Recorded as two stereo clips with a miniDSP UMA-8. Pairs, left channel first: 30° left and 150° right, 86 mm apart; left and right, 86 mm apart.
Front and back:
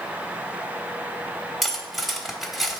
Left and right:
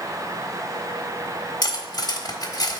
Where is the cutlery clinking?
120° left, 1.1 m.